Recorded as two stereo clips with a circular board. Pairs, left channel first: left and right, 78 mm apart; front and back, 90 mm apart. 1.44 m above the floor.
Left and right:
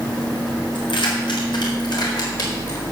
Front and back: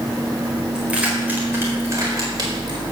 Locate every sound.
0.8 s keys jangling: 100° left, 4.5 m; by 2.8 s 140° left, 4.5 m